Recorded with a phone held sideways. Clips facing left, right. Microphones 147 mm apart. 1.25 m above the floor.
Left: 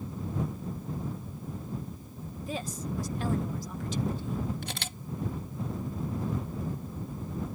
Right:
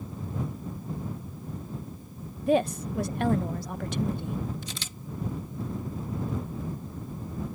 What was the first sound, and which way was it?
A woman speaking, 65° right (ahead or behind).